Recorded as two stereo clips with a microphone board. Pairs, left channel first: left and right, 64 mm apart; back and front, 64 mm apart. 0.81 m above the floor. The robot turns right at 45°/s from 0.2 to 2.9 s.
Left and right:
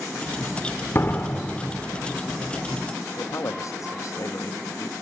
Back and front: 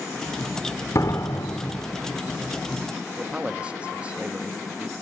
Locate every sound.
0.9 s a door slam: 145° left, 1.6 m; by 1.9 s 175° right, 1.6 m
3.2 s a man speaking: 70° left, 0.9 m